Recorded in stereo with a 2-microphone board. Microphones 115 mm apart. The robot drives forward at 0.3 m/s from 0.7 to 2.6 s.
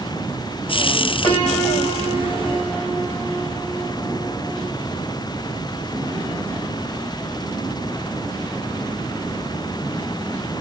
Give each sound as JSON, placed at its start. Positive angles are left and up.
{"t": 1.2, "sound": "a piano", "side_deg": 45, "distance_m": 5.0}